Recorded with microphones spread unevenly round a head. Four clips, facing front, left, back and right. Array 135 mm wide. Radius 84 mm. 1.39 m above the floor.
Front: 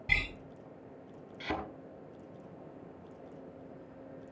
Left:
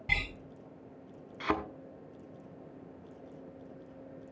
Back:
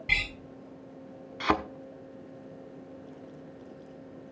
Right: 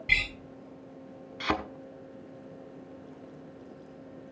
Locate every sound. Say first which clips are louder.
0.1 s a door slam: right 4 dB, back 2 dB; 95° left, 5.5 m
1.4 s a thud: right 2 dB, back 10 dB; 165° left, 1.1 m